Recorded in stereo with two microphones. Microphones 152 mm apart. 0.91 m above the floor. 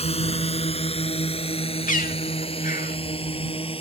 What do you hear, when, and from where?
0.0 s a drone: 40° left (ahead or behind); by 3.8 s 35° left (ahead or behind)
1.9 s a bird: 60° left (ahead or behind)